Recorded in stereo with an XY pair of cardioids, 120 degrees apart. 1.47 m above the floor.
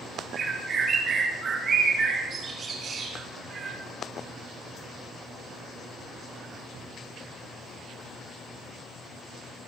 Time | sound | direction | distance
0.3 | a bird | 40° right | 3 m